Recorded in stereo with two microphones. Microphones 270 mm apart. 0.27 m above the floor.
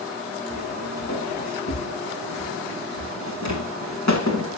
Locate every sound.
0.5 s footsteps: 70° left (ahead or behind), 4.5 m; by 4.6 s 85° left, 6 m